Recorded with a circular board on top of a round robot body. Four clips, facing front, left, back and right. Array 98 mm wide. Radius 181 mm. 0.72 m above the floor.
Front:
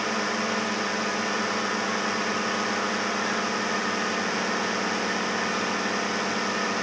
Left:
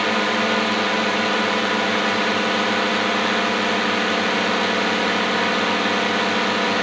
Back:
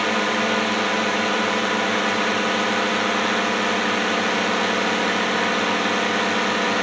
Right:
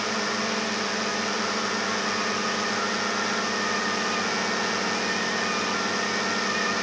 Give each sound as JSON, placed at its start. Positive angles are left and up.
{"t": 0.0, "sound": "a drone", "azimuth_deg": 125}